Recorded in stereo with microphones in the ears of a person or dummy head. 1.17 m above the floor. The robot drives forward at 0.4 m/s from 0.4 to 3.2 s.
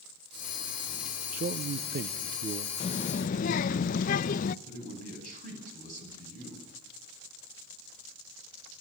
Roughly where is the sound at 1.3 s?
Right.